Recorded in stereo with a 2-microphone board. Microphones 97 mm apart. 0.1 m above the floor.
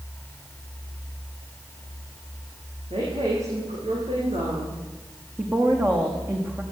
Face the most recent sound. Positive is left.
turn(degrees=-25)  # may be behind; listen again after turning